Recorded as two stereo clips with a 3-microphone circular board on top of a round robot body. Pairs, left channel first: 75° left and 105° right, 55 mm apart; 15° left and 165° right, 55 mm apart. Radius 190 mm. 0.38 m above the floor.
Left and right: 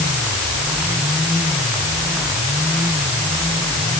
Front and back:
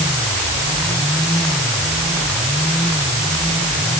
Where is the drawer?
I don't hear a drawer.